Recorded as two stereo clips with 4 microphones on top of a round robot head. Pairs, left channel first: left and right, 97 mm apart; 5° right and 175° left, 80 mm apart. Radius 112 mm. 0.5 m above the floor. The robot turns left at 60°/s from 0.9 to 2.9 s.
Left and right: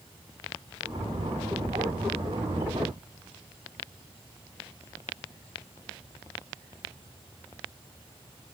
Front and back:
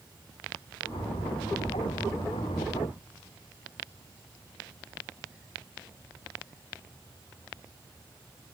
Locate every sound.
Only background noise.